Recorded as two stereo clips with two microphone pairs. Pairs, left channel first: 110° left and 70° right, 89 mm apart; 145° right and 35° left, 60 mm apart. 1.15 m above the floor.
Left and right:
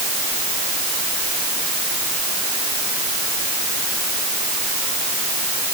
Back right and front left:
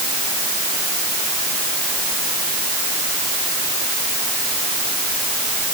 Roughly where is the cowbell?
No cowbell in this recording.